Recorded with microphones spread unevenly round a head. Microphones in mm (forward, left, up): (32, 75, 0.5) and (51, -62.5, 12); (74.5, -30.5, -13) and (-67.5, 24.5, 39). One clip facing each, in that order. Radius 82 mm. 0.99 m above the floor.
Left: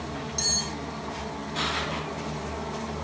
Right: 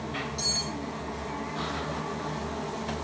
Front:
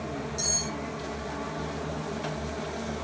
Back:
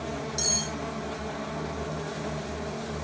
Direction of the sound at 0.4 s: 150° left.